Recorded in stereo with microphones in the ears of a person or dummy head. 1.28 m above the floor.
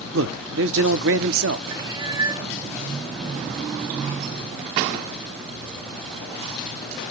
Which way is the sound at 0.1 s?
65° right (ahead or behind).